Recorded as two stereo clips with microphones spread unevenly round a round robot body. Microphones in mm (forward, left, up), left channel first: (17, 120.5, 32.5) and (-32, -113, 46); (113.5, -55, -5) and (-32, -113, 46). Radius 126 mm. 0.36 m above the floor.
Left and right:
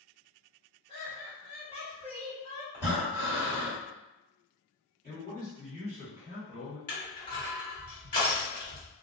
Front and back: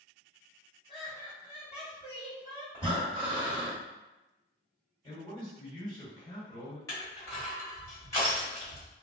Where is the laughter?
125° left, 1.8 m.